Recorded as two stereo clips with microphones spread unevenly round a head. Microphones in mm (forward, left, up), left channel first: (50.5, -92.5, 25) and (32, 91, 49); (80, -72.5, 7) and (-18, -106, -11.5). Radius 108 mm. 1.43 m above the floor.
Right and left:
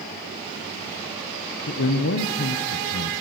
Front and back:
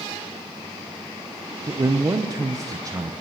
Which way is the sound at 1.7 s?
105° right.